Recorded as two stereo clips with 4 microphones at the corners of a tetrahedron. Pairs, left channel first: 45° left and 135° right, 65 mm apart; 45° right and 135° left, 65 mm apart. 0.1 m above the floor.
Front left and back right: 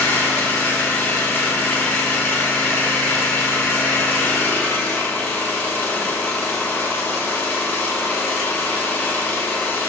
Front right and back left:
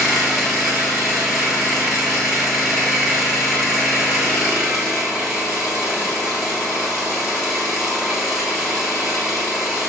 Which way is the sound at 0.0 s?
60° left.